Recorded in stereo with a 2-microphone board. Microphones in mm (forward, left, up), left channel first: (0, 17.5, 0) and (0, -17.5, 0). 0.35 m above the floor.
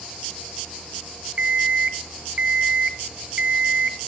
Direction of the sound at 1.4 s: 40° right (ahead or behind).